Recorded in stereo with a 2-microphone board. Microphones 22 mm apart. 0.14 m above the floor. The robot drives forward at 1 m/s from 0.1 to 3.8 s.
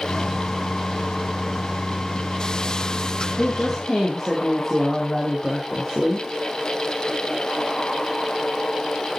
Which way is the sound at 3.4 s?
5° left (ahead or behind).